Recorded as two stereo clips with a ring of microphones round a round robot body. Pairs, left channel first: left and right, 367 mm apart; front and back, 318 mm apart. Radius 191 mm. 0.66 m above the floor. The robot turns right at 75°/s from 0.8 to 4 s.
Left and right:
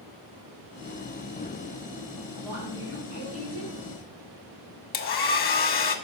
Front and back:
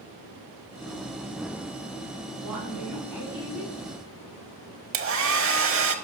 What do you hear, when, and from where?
2.4 s a woman speaking: straight behind, 2.5 m; by 3.7 s 85° right, 2.5 m
4.9 s a hair dryer: 150° left, 1.1 m